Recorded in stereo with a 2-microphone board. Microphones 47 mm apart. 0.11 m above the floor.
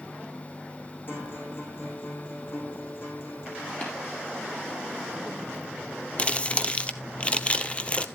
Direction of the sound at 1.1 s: 50° left (ahead or behind).